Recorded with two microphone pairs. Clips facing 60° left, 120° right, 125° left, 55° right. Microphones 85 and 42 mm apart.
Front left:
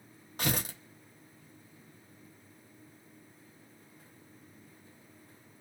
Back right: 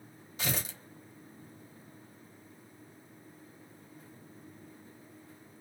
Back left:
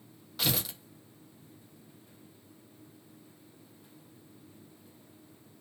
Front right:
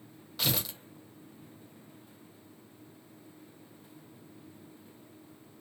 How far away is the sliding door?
I don't hear a sliding door.